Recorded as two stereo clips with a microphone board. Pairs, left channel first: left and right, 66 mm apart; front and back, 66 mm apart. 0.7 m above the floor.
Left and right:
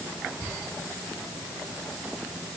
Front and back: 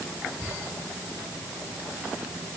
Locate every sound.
Only background noise.